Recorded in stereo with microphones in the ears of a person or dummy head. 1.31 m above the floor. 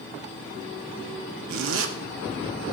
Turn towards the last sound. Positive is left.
turn(degrees=-80)